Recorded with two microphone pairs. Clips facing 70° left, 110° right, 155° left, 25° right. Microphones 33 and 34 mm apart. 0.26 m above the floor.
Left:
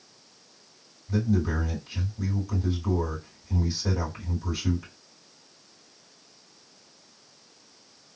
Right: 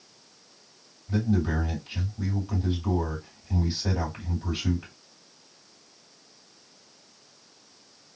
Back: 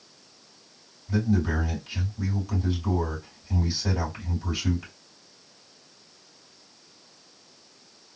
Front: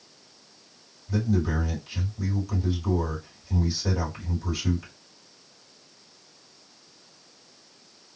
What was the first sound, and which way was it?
A man speaking, 135° right.